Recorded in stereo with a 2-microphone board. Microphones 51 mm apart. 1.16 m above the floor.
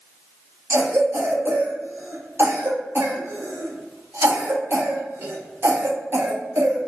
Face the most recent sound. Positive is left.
turn(degrees=-55)  # may be behind; listen again after turning